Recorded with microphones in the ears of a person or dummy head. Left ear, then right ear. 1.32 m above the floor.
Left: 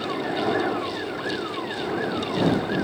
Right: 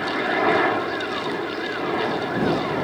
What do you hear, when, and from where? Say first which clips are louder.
0.0 s a helicopter: right 5 dB; 65° right (ahead or behind)